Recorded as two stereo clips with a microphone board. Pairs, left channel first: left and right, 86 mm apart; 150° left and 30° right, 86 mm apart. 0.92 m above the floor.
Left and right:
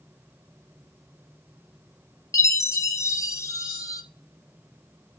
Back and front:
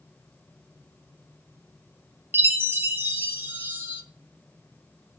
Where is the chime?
35° left, 1.4 m.